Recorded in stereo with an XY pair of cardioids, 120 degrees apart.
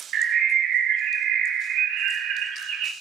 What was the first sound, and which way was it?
A bird, 65° right.